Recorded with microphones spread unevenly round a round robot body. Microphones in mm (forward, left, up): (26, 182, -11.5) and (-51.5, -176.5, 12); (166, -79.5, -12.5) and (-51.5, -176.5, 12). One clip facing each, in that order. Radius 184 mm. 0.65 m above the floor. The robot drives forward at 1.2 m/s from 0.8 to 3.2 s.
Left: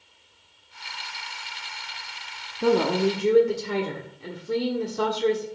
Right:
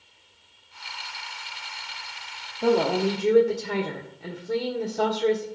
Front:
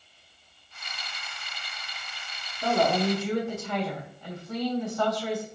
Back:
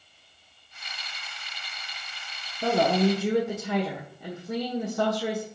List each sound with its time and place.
2.6 s a woman speaking: 130° left, 0.8 m; by 5.5 s 160° left, 1.2 m